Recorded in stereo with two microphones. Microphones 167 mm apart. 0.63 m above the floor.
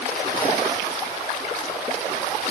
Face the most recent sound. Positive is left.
No sound to turn to.